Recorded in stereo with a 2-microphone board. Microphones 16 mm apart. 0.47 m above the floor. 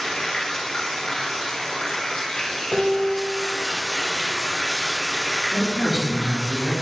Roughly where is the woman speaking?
Left.